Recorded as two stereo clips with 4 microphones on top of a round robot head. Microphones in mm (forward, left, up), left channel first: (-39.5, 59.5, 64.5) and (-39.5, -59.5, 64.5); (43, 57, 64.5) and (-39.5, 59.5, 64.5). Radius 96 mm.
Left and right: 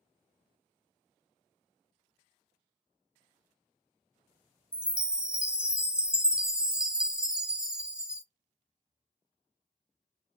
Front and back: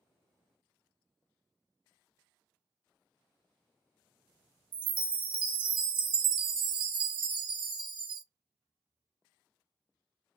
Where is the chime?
175° right, 0.8 m.